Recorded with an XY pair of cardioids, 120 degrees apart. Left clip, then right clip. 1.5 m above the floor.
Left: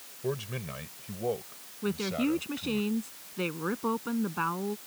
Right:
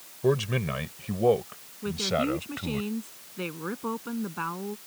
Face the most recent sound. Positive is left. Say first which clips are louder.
# right 3 dB
turn(degrees=10)